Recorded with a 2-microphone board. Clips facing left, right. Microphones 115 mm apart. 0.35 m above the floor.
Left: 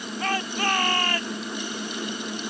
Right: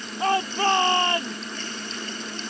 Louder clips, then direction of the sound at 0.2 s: Right 5 dB; 25° right (ahead or behind).